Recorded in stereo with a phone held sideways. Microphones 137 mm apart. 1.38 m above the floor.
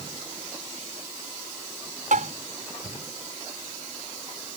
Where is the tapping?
70° right (ahead or behind).